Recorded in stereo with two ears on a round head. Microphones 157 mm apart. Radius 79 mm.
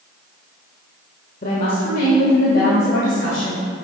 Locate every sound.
1.4 s a woman speaking: 45° left (ahead or behind), 1.4 m; by 3.6 s 70° left (ahead or behind), 3 m